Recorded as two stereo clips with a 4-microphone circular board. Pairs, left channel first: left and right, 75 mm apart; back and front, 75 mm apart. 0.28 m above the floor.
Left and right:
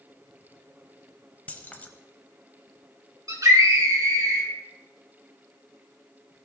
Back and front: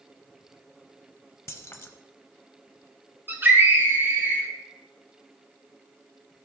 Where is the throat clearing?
I don't hear throat clearing.